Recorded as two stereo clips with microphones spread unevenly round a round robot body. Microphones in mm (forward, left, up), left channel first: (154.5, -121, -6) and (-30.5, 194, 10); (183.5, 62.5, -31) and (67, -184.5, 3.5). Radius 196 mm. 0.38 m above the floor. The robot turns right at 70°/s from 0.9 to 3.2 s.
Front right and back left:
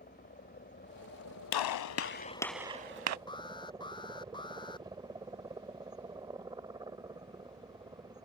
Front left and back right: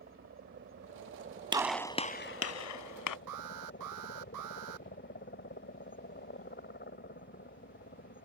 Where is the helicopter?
115° right; by 8.3 s 45° left.